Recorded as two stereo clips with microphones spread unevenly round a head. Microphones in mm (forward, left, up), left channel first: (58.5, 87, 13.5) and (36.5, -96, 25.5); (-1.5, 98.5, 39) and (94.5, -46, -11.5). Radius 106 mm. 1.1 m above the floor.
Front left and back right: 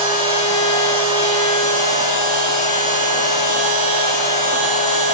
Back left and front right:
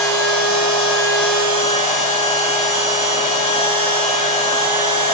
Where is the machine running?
35° left, 4 m.